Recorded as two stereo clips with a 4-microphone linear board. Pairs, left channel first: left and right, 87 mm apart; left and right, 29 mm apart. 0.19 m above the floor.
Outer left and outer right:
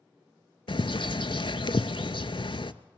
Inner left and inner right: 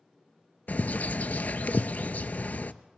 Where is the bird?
80° left, 0.6 m.